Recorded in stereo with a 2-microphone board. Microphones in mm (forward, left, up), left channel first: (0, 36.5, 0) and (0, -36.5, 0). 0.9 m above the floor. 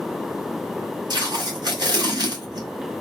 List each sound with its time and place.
1.1 s tape being pulled: 65° right (ahead or behind), 1.7 m